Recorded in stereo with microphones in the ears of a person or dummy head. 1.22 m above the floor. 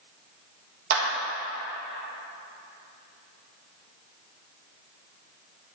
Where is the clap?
55° right (ahead or behind), 1.5 m.